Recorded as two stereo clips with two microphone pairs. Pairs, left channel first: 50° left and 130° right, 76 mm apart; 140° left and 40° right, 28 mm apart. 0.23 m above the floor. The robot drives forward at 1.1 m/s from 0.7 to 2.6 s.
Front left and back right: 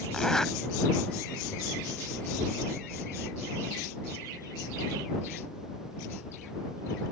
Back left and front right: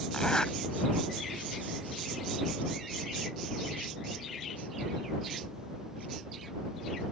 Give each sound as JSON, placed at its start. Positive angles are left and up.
{"t": 0.1, "sound": "a zipper", "azimuth_deg": 130}